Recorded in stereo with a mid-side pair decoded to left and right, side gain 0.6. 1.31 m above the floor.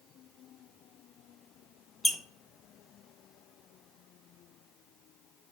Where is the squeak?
10° left, 0.6 m.